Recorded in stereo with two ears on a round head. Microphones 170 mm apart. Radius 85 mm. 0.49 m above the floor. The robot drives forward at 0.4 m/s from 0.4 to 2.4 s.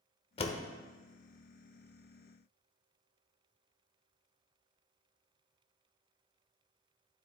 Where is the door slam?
30° left (ahead or behind), 0.9 m.